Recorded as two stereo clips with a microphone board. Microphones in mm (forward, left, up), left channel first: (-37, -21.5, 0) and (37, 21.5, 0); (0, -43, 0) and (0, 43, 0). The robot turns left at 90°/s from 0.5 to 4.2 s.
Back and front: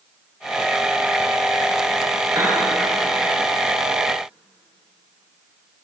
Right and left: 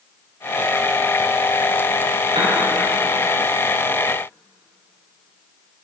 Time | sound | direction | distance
2.4 | a piano | 80° left | 10 m